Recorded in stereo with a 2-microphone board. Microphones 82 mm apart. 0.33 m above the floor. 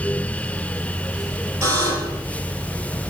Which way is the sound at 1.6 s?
35° right (ahead or behind).